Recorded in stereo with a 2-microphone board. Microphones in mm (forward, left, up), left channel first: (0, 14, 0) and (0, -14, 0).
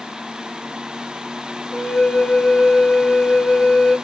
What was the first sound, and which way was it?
A flute, 30° left (ahead or behind).